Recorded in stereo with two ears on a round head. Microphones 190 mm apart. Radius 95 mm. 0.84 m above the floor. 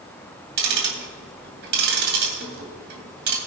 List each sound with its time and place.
0.6 s ticking: 50° right (ahead or behind), 2.5 m